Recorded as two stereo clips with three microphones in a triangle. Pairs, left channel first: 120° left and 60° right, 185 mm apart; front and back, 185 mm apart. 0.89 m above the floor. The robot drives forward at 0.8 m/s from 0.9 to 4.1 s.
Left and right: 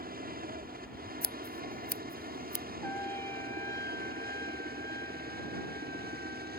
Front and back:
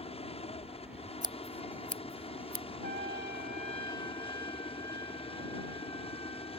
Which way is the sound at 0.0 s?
50° right.